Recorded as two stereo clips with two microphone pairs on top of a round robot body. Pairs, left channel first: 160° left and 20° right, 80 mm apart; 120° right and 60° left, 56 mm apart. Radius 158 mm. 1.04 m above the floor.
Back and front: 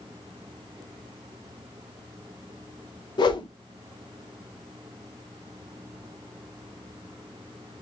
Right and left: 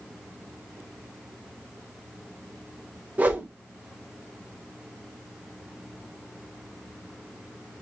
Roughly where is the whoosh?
Behind left.